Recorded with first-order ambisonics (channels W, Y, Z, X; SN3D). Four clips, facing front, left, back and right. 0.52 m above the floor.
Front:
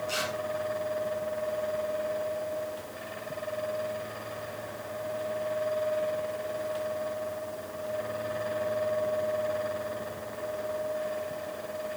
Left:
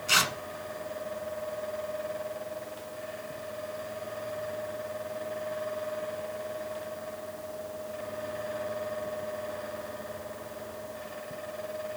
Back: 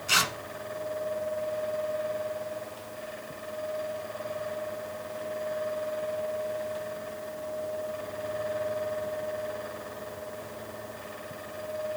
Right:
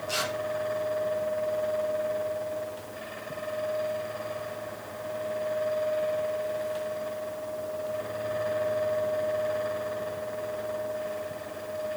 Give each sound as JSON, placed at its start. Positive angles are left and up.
{"t": 0.1, "sound": "tearing paper", "azimuth_deg": 130, "distance_m": 1.3}